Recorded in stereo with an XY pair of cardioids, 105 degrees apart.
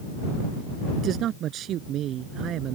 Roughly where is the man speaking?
Right.